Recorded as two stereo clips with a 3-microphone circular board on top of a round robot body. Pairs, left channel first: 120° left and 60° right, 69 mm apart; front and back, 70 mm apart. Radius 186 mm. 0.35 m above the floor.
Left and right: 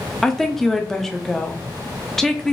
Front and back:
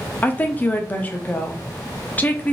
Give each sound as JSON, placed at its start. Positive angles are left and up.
{"t": 0.2, "sound": "a woman speaking", "azimuth_deg": 40, "distance_m": 0.8}